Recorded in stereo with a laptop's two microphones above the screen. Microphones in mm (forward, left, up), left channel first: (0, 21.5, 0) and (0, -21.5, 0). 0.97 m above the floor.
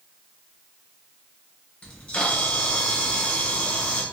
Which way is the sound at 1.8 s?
25° left (ahead or behind).